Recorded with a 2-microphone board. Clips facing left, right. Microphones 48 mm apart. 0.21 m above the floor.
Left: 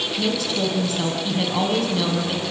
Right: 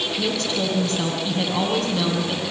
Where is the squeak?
I don't hear a squeak.